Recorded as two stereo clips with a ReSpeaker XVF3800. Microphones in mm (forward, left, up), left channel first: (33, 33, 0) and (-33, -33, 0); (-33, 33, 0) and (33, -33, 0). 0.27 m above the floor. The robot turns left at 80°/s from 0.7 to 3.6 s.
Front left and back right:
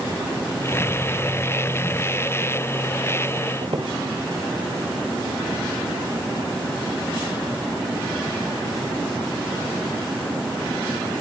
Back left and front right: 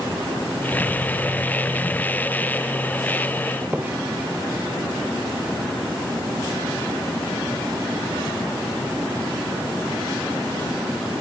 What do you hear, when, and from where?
3.6 s a squeak: 115° right, 2.5 m